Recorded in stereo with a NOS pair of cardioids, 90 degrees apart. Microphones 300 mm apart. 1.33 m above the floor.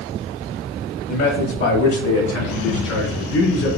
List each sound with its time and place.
1.1 s a man speaking: 70° left, 1.4 m; by 3.7 s 80° left, 3.5 m